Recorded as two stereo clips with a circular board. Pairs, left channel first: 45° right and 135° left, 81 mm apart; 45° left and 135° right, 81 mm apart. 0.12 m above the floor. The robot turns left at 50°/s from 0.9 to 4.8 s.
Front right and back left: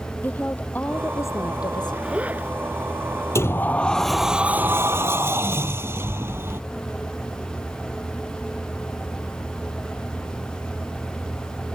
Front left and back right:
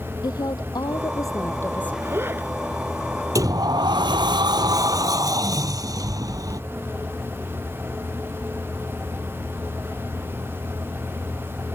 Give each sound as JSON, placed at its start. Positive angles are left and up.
{"t": 0.2, "sound": "a woman speaking", "azimuth_deg": 25}
{"t": 2.0, "sound": "a zipper", "azimuth_deg": -155}
{"t": 3.4, "sound": "a sliding door", "azimuth_deg": -95}